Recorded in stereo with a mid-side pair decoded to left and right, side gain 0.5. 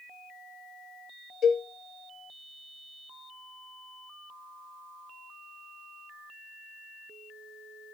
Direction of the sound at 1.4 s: 55° left.